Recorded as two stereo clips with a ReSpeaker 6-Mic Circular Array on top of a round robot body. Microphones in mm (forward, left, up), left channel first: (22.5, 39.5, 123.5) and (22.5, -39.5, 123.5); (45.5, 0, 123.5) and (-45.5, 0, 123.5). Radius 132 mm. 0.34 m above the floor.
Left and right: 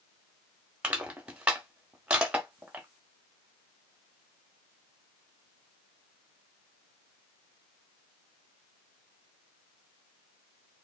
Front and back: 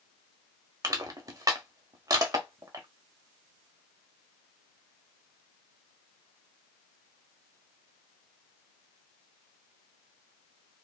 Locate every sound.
0.8 s crushing: 160° right, 0.9 m